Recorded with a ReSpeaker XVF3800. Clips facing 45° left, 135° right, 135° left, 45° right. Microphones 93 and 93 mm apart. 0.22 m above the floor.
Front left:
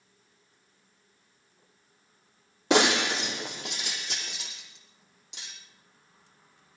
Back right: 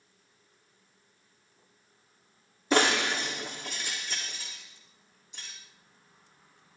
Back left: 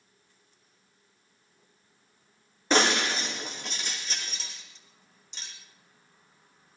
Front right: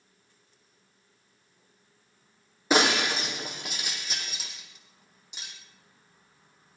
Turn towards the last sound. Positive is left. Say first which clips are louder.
# front left 2 dB, front right 1 dB
turn(degrees=35)